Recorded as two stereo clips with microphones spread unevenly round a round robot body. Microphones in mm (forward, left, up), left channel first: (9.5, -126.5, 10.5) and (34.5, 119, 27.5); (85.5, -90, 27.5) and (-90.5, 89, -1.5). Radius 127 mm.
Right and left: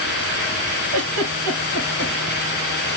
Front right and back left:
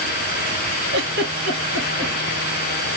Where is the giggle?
90° left, 3 m.